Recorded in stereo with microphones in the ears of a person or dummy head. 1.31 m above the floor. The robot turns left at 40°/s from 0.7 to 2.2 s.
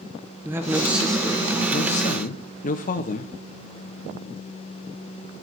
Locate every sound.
0.5 s a man speaking: 165° right, 1.0 m; by 3.3 s 135° left, 1.0 m